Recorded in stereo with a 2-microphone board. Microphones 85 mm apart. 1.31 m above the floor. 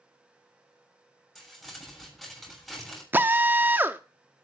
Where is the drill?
25° right (ahead or behind), 0.8 m.